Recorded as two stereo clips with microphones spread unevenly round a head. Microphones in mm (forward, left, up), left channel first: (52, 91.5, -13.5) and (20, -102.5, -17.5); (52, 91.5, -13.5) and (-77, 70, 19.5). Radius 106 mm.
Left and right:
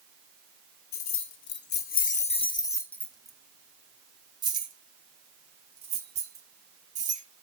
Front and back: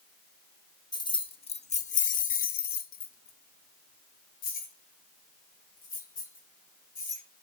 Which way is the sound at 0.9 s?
65° left.